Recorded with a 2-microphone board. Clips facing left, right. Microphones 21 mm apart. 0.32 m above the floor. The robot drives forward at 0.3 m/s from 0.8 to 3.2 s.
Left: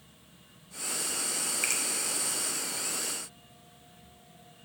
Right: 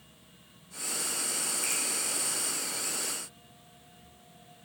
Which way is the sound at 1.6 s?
45° left (ahead or behind).